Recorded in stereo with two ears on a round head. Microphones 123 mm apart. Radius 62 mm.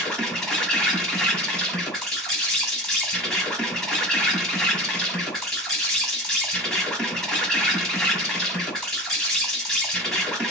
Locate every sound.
0.0 s an insect: centre (ahead or behind), 1.0 m